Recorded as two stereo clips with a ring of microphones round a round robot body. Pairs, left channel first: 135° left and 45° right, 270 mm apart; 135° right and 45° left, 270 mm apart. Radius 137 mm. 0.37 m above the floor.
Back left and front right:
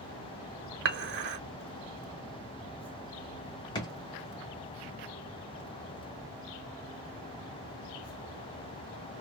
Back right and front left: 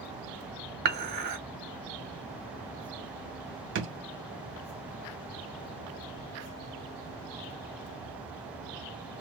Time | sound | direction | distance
0.8 | dishes clattering | 5° right | 0.8 m
3.8 | a drawer | 65° left | 0.7 m